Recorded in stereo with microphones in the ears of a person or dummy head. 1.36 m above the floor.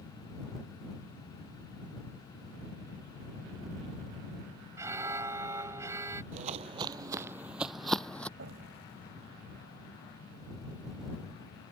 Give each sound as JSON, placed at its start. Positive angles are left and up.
{"t": 4.8, "sound": "an alarm", "side_deg": -25}
{"t": 6.3, "sound": "footsteps", "side_deg": -35}
{"t": 8.4, "sound": "an explosion", "side_deg": -70}